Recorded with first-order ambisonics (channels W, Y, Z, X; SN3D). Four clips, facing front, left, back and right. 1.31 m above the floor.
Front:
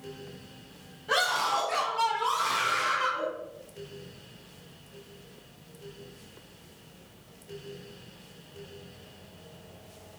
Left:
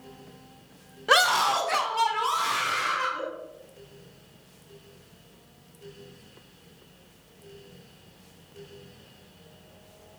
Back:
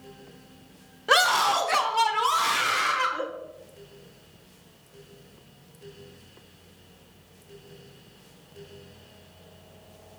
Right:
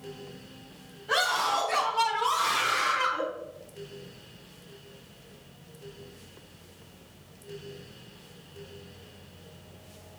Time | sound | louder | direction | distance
1.1 | a scream | left 5 dB, back 6 dB | 125° left | 1.0 m